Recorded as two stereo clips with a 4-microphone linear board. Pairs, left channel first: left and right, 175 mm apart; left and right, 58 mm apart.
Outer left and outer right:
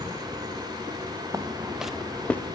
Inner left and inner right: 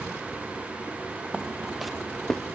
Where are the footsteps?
20° right (ahead or behind), 0.9 m; by 2.4 s 10° left (ahead or behind), 1.6 m.